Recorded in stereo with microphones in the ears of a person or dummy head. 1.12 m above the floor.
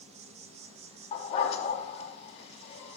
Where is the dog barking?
30° left (ahead or behind), 3 m.